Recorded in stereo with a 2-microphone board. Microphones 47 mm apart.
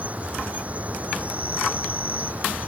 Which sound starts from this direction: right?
An insect, at 0.0 s.